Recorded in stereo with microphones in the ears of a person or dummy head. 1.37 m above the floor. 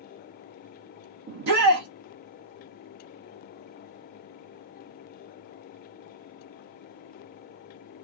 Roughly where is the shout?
Right.